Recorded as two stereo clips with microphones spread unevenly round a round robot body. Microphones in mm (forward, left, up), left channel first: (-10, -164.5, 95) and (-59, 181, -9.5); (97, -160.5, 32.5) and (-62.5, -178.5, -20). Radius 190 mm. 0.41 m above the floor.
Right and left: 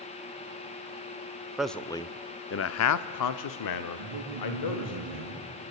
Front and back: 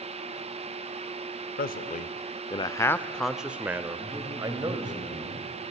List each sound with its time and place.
1.6 s a man speaking: 35° left, 0.9 m; by 5.0 s 120° right, 1.8 m
4.0 s a man speaking: 100° left, 6 m